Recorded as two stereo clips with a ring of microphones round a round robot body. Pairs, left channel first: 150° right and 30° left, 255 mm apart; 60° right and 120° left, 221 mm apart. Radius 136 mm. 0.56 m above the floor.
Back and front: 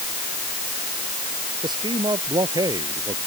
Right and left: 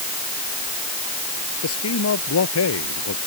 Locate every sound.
1.6 s a man speaking: 45° right; by 3.2 s 50° right